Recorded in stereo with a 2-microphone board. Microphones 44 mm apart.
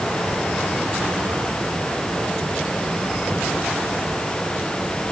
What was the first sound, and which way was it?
Only background noise.